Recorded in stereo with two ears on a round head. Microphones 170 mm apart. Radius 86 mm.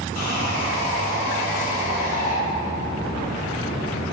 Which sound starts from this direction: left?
Sawing, at 0.1 s.